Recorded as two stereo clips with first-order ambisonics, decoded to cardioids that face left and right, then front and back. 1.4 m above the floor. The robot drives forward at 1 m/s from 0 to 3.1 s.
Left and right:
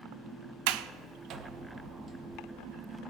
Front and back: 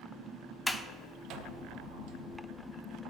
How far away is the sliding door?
About 0.5 m.